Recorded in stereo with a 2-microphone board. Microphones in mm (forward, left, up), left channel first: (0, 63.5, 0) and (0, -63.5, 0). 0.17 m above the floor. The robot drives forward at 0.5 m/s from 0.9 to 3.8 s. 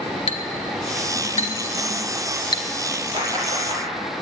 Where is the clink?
55° left (ahead or behind), 1.0 m; by 2.6 s 35° left (ahead or behind), 1.4 m.